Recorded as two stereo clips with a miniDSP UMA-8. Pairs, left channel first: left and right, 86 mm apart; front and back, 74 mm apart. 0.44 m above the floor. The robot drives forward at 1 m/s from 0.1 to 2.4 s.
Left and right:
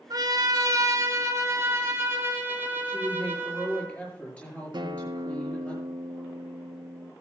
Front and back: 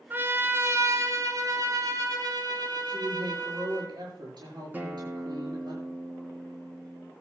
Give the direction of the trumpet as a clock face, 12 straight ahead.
4 o'clock.